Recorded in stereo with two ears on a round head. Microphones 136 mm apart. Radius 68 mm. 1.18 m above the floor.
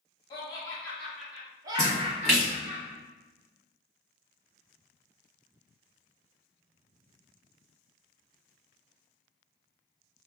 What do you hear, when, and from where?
0.3 s laughter: 25° left (ahead or behind), 0.9 m; by 2.8 s 55° right (ahead or behind), 0.9 m
1.8 s a splash: 5° left (ahead or behind), 1.7 m